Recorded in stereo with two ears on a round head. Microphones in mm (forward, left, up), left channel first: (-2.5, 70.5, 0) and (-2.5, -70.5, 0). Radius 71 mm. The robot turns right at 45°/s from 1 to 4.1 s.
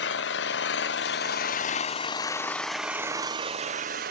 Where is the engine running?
100° left, 0.7 m; by 4.1 s 120° right, 0.7 m.